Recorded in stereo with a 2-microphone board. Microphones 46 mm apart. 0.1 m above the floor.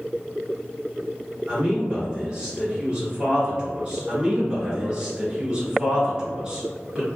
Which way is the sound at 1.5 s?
25° right (ahead or behind).